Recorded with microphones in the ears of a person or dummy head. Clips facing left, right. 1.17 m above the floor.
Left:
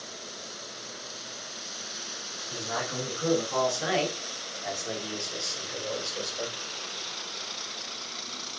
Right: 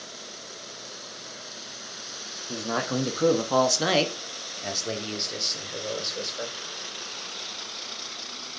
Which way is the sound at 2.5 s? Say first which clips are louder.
Right 6 dB; 55° right (ahead or behind).